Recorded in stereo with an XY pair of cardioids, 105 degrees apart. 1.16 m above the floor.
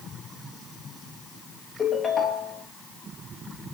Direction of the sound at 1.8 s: 35° left.